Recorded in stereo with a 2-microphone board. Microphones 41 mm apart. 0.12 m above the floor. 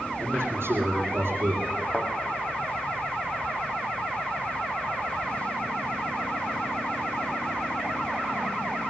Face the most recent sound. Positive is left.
turn(degrees=30)  # may be behind; listen again after turning